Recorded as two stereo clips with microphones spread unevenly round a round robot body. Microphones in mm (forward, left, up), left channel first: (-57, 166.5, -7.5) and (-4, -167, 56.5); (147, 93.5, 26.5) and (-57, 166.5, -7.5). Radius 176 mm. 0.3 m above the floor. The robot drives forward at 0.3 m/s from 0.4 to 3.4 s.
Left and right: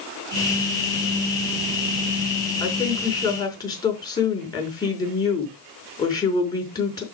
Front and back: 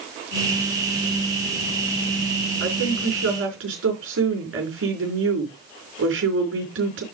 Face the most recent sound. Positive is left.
turn(degrees=175)